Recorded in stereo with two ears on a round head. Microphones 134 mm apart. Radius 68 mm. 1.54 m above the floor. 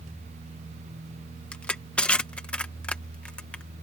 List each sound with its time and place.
1.5 s crushing: 5° left (ahead or behind)